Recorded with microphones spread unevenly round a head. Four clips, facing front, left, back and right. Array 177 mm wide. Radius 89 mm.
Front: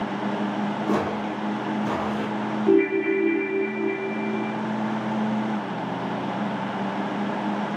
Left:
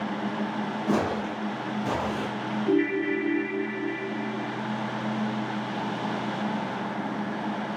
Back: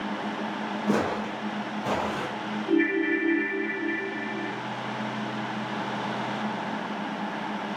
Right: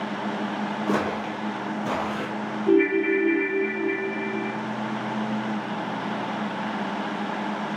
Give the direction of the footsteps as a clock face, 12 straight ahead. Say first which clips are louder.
Even, back 1 dB; 2 o'clock.